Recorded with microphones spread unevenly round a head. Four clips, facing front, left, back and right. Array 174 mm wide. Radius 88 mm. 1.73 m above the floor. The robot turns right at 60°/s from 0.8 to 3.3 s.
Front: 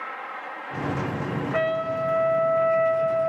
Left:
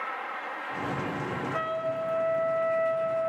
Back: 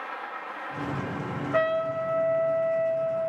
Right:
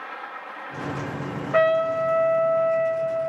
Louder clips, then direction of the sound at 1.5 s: Right 13 dB, back 1 dB; 105° right.